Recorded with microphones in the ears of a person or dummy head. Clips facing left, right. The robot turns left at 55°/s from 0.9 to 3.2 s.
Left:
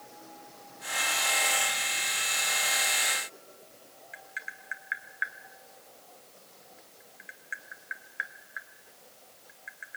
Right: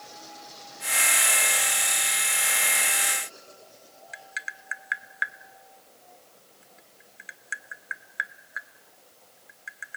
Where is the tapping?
60° right (ahead or behind), 0.7 m.